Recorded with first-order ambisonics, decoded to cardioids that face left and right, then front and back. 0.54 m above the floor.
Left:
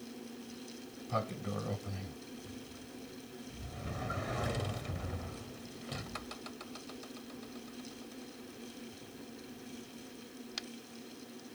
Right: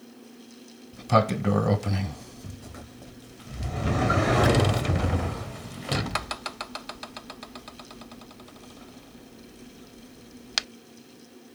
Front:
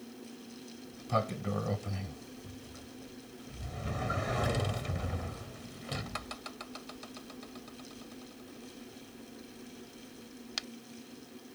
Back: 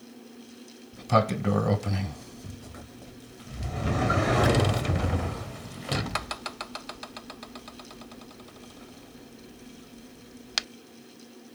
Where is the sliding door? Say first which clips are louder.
Right 15 dB, back 9 dB; 125° right.